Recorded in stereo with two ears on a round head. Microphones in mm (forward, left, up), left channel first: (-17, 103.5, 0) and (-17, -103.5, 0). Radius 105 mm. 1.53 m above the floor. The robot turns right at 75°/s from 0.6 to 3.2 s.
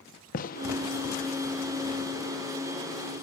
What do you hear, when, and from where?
0.3 s a gunshot: 35° left (ahead or behind), 1.2 m; by 0.7 s 45° left (ahead or behind), 1.2 m